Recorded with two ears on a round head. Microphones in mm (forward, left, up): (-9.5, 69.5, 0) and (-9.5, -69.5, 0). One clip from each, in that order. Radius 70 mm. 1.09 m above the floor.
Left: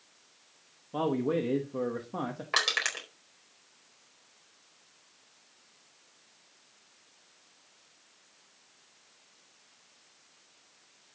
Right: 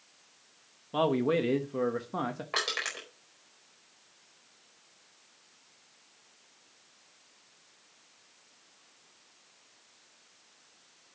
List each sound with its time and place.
0.9 s a man speaking: 60° right (ahead or behind), 1.1 m; by 2.4 s 20° right (ahead or behind), 1.1 m
2.5 s crushing: 35° left (ahead or behind), 4.5 m